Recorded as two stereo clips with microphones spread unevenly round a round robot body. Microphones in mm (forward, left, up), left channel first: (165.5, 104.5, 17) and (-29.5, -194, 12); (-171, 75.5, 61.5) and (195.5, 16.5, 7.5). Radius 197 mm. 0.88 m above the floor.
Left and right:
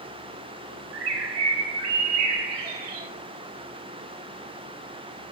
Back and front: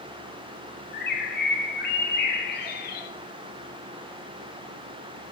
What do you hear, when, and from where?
0.9 s a bird: 120° right, 1.5 m